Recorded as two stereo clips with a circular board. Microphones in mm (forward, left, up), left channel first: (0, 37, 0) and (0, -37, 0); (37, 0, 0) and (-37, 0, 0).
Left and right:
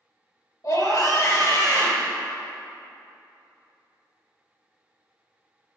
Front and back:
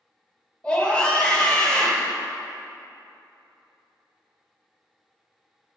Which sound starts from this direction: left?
A scream, at 0.6 s.